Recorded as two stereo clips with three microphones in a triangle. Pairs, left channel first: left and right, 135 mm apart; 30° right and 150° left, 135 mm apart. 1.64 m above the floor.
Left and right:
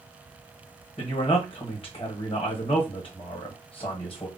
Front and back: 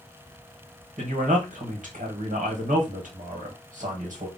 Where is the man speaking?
135° left, 1.2 m.